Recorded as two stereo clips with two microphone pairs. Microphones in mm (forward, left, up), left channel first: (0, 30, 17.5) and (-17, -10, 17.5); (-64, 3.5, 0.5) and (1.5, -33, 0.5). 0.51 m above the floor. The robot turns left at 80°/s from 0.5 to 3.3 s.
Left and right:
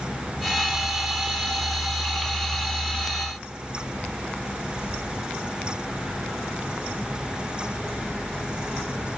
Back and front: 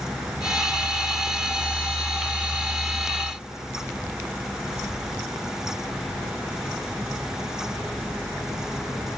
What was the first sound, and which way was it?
Only background noise.